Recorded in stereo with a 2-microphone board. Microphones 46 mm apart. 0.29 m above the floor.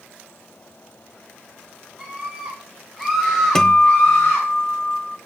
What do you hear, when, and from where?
2.0 s a scream: 15° right (ahead or behind), 4 m; by 4.5 s 45° left (ahead or behind), 3 m
3.5 s a guitar: 15° left (ahead or behind), 0.7 m